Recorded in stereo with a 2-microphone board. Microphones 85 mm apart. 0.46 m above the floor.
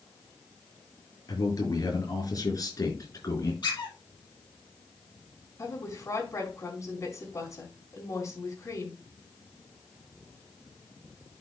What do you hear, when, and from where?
1.3 s a man speaking: 45° left (ahead or behind), 6 m
3.6 s a squeak: 60° left (ahead or behind), 5.5 m
5.6 s a woman speaking: 40° left (ahead or behind), 2.5 m